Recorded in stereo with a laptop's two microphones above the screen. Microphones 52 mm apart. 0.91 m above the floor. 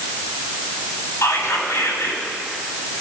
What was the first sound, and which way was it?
Whispering, 85° left.